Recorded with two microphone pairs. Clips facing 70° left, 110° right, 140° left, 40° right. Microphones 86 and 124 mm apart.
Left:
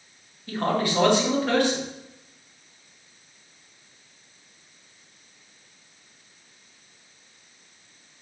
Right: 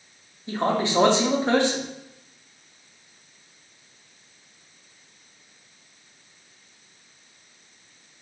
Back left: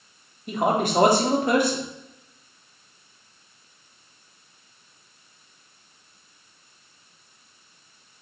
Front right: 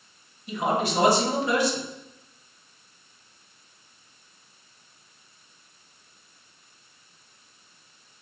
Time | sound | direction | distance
0.5 | a man speaking | straight behind | 0.6 m